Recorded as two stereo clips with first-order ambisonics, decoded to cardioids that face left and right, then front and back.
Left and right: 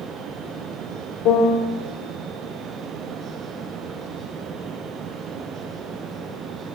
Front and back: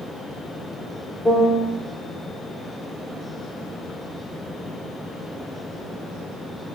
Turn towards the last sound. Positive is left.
turn(degrees=80)